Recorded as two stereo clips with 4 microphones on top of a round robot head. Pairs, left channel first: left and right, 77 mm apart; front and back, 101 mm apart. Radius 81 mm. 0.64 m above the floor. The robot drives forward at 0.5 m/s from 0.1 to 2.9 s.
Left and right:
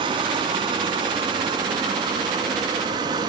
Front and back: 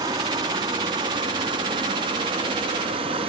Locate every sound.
0.0 s running water: 120° right, 3.5 m; by 3.3 s 135° right, 4.5 m